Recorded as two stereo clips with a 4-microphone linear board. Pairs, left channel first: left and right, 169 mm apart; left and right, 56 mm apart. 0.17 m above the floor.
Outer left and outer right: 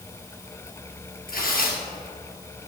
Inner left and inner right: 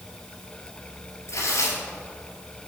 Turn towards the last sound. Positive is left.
turn(degrees=60)  # may be behind; listen again after turning